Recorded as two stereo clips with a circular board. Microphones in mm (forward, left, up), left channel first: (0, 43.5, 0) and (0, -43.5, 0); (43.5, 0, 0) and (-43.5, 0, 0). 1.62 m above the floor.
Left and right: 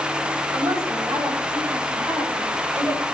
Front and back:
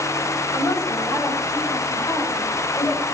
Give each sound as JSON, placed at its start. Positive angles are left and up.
{"t": 0.5, "sound": "a woman speaking", "azimuth_deg": -45, "distance_m": 9.5}